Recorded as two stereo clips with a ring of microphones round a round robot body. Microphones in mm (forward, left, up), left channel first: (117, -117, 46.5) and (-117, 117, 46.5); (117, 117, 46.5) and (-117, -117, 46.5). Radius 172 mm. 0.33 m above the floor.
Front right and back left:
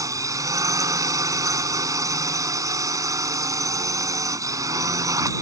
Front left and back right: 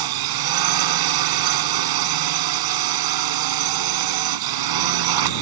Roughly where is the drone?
Behind right.